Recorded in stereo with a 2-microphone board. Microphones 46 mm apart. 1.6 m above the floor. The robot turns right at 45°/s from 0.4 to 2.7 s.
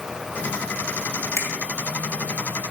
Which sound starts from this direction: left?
A finger snap, at 1.4 s.